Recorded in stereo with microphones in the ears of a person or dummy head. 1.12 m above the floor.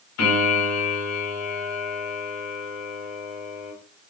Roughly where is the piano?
Left.